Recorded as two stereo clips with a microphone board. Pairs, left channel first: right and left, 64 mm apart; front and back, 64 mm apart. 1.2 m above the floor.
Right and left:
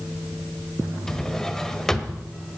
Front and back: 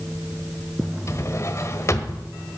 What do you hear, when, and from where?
1.1 s a drawer: 10° right, 1.3 m